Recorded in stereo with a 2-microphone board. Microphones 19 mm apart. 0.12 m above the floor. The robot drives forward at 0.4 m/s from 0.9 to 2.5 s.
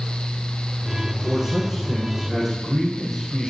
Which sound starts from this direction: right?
A man speaking, at 1.2 s.